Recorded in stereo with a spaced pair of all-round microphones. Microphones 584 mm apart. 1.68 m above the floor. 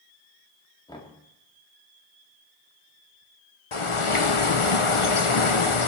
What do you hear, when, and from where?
0.9 s knocking: 5° left (ahead or behind), 2 m
3.7 s a bird: 55° left (ahead or behind), 1.0 m